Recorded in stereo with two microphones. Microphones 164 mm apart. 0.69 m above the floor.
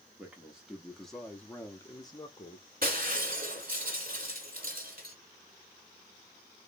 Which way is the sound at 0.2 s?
10° right (ahead or behind).